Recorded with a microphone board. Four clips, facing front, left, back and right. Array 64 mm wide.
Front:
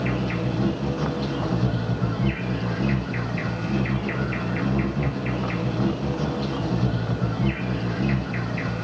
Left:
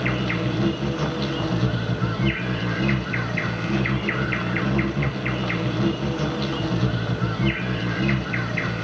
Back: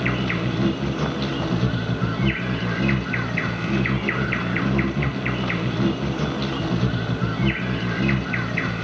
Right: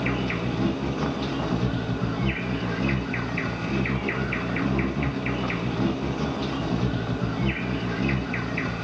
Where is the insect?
145° left, 1.5 m.